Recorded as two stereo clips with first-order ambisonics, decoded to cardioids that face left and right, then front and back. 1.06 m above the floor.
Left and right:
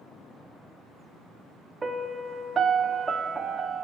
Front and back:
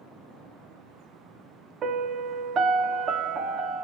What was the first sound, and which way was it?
A piano, 150° right.